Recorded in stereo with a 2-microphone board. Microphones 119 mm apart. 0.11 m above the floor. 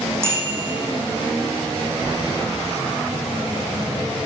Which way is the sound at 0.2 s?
20° right (ahead or behind).